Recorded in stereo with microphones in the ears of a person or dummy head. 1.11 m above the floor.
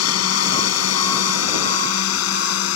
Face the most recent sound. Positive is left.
turn(degrees=65)  # may be behind; listen again after turning